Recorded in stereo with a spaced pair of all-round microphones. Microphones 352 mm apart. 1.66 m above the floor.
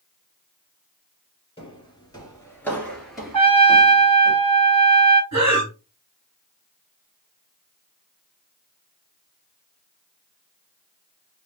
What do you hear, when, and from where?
1.6 s footsteps: 15° left (ahead or behind), 1.7 m; by 4.3 s 10° right (ahead or behind), 2.0 m
3.3 s a trumpet: 75° right (ahead or behind), 0.6 m
5.3 s breathing: 50° right (ahead or behind), 2 m